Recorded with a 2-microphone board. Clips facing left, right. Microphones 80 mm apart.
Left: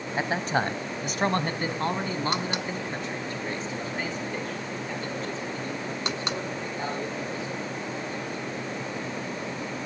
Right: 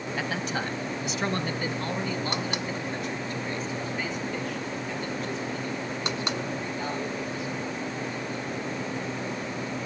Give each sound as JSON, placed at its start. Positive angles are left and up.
{"t": 0.2, "sound": "a man speaking", "side_deg": 30, "distance_m": 1.4}